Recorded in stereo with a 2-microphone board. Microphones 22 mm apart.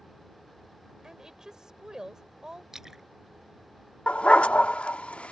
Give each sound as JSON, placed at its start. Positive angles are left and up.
{"t": 1.0, "sound": "a woman speaking", "side_deg": -30}
{"t": 2.7, "sound": "a splash", "side_deg": -20}
{"t": 4.1, "sound": "a dog barking", "side_deg": 70}